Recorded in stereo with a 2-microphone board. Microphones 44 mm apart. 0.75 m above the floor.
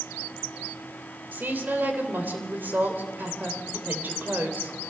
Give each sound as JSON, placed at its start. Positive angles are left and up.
{"t": 1.3, "sound": "a woman speaking", "side_deg": -50, "distance_m": 3.0}